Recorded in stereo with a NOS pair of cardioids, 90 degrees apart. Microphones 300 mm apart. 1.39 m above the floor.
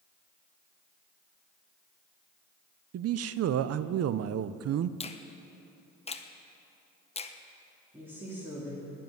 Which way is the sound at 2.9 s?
55° right.